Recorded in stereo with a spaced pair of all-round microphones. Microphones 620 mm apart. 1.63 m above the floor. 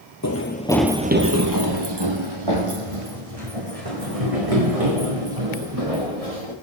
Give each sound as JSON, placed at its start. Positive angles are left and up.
{"t": 0.2, "sound": "running footsteps", "side_deg": 30, "distance_m": 1.8}